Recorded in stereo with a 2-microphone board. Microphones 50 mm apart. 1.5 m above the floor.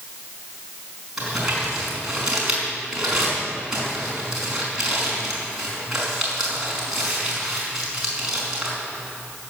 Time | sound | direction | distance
1.2 | crumpling | 15° right (ahead or behind) | 5 m